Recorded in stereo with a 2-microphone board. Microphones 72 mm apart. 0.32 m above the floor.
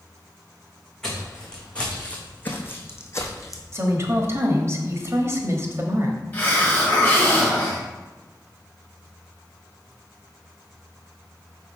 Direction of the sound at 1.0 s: 10° left (ahead or behind).